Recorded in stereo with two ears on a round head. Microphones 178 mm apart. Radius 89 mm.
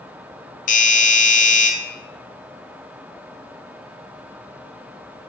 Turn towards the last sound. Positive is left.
turn(degrees=40)  # may be behind; listen again after turning